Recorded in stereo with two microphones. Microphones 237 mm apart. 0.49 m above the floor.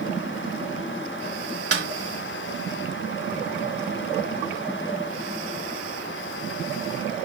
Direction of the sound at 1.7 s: 80° right.